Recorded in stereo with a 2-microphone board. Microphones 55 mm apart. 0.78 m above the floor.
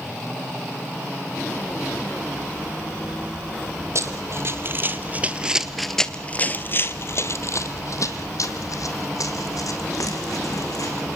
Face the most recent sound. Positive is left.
turn(degrees=80)